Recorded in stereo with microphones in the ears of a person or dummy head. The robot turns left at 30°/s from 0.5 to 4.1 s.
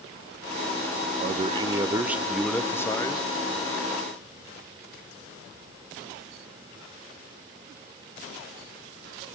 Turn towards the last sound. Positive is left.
turn(degrees=130)